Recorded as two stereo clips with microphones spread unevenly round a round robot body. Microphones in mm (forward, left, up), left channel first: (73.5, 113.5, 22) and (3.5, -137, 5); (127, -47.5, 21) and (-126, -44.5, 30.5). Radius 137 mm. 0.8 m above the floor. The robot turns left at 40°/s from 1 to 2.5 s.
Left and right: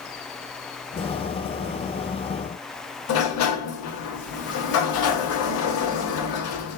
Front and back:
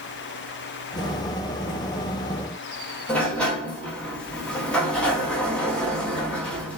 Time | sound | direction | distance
3.1 | a sliding door | 80° left | 0.9 m